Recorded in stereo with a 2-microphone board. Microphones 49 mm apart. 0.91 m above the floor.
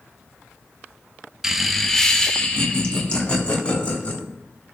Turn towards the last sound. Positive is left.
turn(degrees=25)  # may be behind; listen again after turning